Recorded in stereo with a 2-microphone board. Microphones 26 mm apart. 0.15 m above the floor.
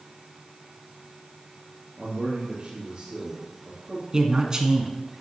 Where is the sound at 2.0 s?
40° right (ahead or behind), 2.5 m.